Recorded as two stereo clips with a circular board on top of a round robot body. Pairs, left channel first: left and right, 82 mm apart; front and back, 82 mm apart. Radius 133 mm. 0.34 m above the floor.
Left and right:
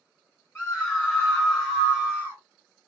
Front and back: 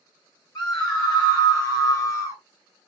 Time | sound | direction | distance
0.6 | a scream | 30° left | 1.6 m